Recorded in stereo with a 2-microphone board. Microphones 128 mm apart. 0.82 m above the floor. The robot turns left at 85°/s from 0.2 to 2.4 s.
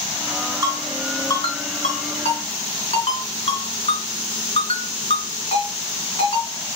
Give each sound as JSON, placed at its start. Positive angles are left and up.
{"t": 0.6, "sound": "a ringtone", "side_deg": -30, "distance_m": 3.5}